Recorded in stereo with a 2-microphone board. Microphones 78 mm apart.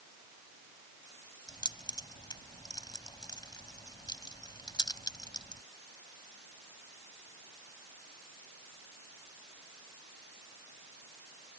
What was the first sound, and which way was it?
Keys jangling, 70° left (ahead or behind).